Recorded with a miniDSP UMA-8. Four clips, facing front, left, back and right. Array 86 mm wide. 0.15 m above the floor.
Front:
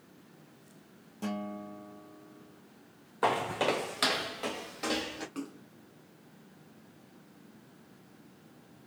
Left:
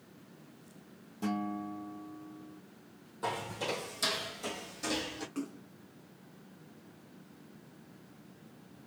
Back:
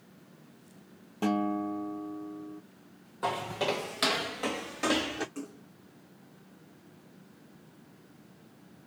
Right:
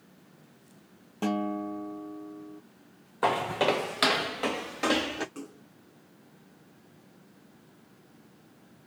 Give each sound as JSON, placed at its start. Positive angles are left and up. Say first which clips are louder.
{"t": 1.2, "sound": "a guitar", "louder": "right 6 dB, back 9 dB", "azimuth_deg": -130, "distance_m": 1.0}
{"t": 3.2, "sound": "footsteps", "louder": "right 11 dB, front 3 dB", "azimuth_deg": -60, "distance_m": 0.9}
{"t": 5.3, "sound": "a splash", "louder": "left 4 dB, front 1 dB", "azimuth_deg": 5, "distance_m": 1.6}